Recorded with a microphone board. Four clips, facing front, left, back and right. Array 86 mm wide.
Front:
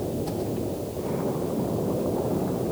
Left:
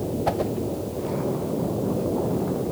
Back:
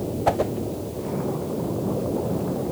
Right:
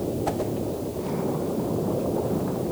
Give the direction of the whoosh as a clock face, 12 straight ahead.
6 o'clock.